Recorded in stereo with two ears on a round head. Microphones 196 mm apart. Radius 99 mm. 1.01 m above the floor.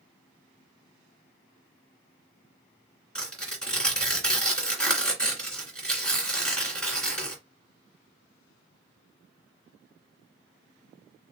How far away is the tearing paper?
About 2.5 m.